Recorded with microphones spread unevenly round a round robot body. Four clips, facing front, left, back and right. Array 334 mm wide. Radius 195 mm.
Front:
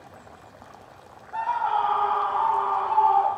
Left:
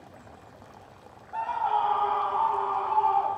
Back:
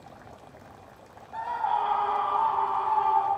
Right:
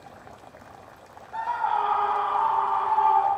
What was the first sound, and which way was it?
A scream, 125° left.